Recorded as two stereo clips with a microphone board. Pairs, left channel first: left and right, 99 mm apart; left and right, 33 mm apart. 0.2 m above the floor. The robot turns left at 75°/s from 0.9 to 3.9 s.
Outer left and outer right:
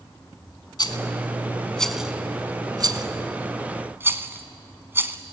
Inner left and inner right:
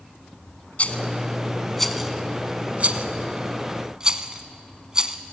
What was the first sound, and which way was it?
A rattle, 45° left (ahead or behind).